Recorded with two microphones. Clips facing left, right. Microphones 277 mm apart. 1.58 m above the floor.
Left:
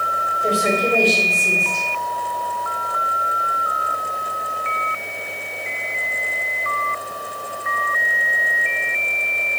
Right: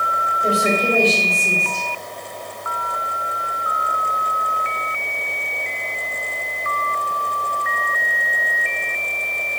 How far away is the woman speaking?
About 4.5 m.